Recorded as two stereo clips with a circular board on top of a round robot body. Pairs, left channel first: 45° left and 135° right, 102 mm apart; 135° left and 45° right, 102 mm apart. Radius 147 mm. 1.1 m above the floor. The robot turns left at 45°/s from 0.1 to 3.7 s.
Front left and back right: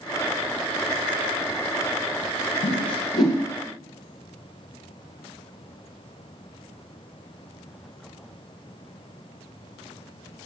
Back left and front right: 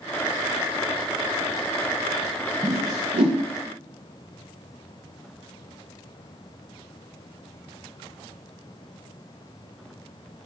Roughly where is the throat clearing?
I don't hear throat clearing.